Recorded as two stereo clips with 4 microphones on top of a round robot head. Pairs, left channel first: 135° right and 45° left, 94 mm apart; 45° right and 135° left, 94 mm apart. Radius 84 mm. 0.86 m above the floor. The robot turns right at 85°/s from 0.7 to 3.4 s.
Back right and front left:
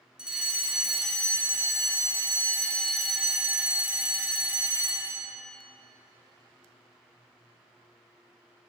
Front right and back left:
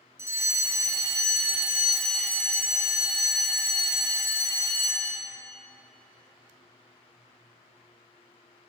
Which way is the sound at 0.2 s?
115° left.